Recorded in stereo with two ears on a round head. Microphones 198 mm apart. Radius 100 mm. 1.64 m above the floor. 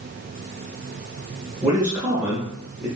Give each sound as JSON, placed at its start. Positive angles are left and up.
{"t": 1.6, "sound": "a man speaking", "side_deg": -10, "distance_m": 0.8}